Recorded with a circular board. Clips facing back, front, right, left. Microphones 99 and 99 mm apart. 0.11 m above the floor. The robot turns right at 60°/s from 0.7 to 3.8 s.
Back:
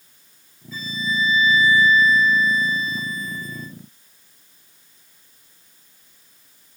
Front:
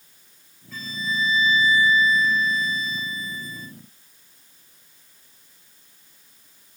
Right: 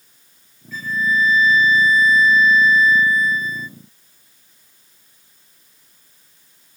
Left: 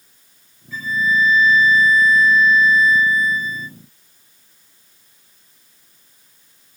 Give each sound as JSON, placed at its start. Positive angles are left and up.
{"t": 0.7, "sound": "a flute", "azimuth_deg": 5, "distance_m": 1.7}